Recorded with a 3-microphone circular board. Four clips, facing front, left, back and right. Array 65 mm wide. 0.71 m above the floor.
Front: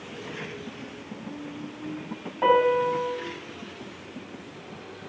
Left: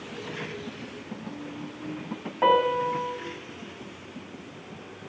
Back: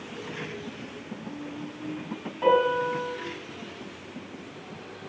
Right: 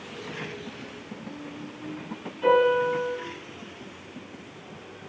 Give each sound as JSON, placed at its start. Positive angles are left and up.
{"t": 2.4, "sound": "a piano", "azimuth_deg": 70, "distance_m": 5.0}